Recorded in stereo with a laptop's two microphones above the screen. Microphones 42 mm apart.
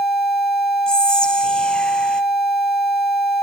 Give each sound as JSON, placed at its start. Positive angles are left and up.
{"t": 0.9, "sound": "whispering", "side_deg": 20, "distance_m": 0.5}